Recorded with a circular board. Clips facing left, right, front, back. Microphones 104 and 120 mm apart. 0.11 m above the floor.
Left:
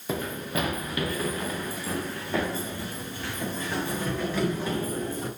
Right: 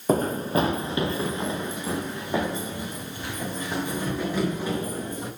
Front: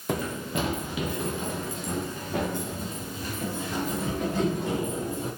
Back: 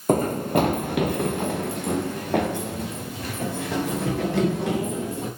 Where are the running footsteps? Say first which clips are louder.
Right 8 dB, back 9 dB; 135° right, 0.6 m; by 5.3 s 165° right, 4.5 m.